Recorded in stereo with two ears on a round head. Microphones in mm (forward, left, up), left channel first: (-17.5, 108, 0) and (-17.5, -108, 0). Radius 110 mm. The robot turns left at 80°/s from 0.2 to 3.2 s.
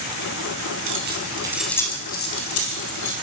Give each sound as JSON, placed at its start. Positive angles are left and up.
{"t": 0.9, "sound": "keys jangling", "side_deg": -65, "distance_m": 6.5}